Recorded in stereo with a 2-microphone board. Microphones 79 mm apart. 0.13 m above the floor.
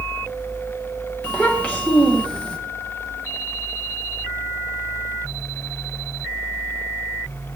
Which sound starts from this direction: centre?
A child speaking, at 1.2 s.